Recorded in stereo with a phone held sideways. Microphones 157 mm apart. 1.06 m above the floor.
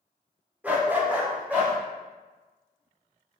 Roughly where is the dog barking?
Centre.